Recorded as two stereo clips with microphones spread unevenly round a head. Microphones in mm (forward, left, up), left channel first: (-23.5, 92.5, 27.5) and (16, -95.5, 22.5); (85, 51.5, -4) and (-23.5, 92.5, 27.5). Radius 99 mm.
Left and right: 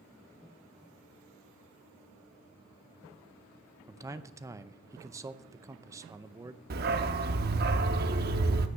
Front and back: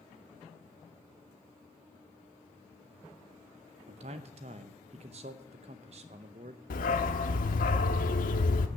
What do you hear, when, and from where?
3.9 s a man speaking: 150° right, 0.6 m
6.7 s a dog barking: 40° right, 0.8 m